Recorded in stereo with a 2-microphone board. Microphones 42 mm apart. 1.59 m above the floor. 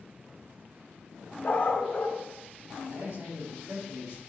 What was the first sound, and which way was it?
A dog barking, 40° left (ahead or behind).